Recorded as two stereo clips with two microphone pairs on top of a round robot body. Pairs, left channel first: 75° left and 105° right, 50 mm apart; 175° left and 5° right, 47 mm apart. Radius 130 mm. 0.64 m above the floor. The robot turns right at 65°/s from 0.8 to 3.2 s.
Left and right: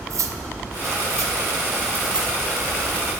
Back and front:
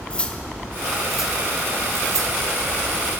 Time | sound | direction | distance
0.1 | cutlery clinking | 115° right | 0.7 m